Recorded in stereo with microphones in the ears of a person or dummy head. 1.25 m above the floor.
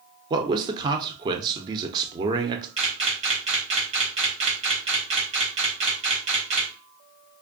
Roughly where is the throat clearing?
No throat clearing in this recording.